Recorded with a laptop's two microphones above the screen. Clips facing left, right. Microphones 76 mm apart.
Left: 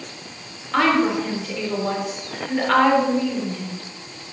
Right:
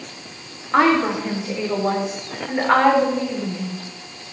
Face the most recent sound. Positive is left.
turn(degrees=-20)  # may be behind; listen again after turning